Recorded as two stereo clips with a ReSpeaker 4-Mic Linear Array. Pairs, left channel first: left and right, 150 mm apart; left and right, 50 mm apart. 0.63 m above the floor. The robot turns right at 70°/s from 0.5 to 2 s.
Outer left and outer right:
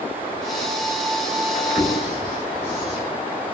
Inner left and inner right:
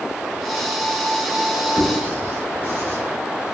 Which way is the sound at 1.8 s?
30° right (ahead or behind).